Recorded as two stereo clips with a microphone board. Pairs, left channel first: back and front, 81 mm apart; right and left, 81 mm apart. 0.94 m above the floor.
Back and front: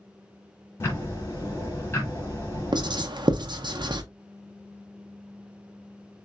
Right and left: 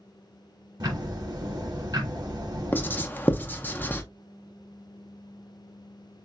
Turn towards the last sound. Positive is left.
turn(degrees=-25)